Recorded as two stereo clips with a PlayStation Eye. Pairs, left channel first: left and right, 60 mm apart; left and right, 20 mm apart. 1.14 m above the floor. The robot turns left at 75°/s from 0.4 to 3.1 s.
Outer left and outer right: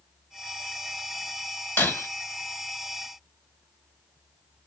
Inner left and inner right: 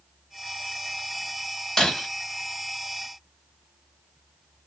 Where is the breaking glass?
35° left (ahead or behind), 1.7 m; by 2.1 s 55° left (ahead or behind), 1.7 m.